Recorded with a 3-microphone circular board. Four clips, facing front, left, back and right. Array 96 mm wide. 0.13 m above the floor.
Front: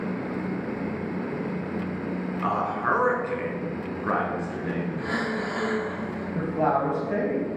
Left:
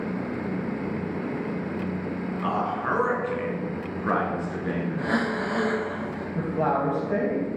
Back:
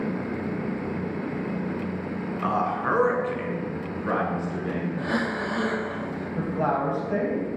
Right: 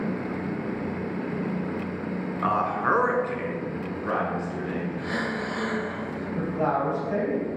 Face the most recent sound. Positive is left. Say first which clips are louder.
# left 1 dB, front 2 dB
turn(degrees=30)